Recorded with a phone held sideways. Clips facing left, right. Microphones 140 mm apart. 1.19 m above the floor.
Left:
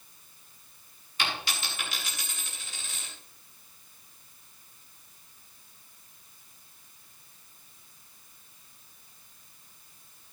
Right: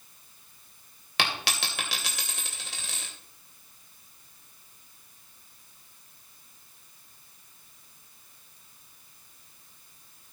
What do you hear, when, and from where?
1.2 s a dropped coin: 80° right, 2.5 m